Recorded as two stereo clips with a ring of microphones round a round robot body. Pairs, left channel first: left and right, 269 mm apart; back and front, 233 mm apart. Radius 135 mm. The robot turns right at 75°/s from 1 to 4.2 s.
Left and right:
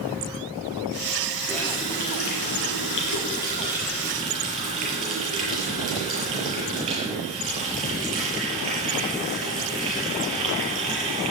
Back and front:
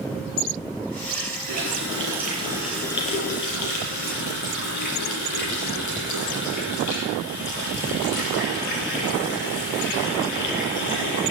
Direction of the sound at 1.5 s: Straight ahead.